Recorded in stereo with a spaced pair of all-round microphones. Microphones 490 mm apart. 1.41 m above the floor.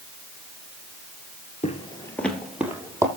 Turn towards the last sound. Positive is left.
turn(degrees=-5)  # may be behind; listen again after turning